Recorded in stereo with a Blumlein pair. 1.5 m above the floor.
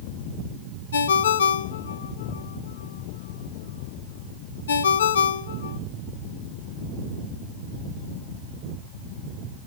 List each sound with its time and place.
0.9 s a ringtone: 70° left, 1.5 m